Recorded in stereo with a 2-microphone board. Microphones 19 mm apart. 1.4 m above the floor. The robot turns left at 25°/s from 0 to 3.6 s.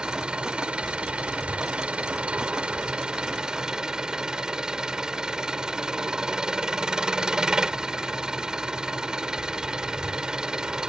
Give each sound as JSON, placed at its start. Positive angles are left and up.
{"t": 0.0, "sound": "an engine running", "azimuth_deg": -45}